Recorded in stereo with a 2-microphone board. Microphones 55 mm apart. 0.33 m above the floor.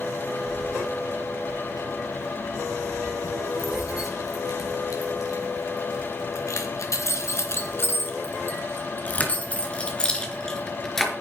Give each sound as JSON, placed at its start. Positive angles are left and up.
{"t": 0.5, "sound": "keys jangling", "side_deg": 75, "distance_m": 6.5}